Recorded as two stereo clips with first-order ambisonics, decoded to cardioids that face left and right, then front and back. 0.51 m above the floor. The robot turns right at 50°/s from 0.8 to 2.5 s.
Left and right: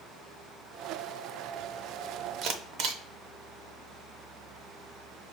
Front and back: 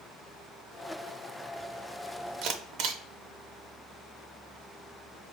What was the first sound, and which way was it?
A camera shutter, 140° right.